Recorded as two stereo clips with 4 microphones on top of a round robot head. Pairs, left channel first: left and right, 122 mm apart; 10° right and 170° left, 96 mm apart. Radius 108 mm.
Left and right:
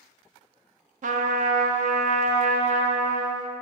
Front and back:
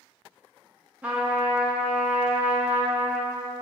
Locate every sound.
1.0 s a trumpet: 110° right, 0.5 m